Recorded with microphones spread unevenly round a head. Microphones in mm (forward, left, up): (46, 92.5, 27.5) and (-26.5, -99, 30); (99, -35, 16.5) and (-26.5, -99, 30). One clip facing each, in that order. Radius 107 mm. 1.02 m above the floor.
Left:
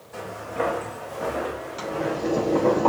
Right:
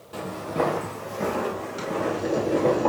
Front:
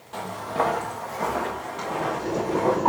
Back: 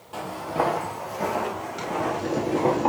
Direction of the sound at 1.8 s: 165° left.